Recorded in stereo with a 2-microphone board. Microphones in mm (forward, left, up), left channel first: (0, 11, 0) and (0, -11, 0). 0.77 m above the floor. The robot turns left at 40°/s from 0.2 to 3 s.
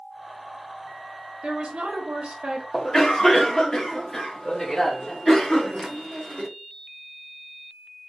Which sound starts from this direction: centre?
A cough, at 2.7 s.